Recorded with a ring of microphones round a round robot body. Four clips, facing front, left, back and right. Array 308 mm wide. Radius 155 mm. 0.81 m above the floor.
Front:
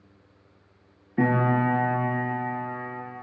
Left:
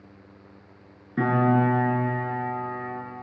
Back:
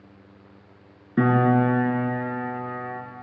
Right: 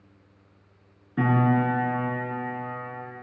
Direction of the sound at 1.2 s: 175° left.